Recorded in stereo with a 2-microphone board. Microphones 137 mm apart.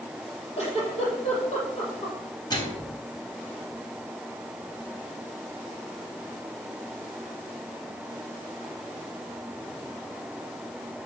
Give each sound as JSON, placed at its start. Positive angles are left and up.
{"t": 0.6, "sound": "a giggle", "side_deg": 50, "distance_m": 6.0}
{"t": 2.5, "sound": "a microwave", "side_deg": 30, "distance_m": 3.5}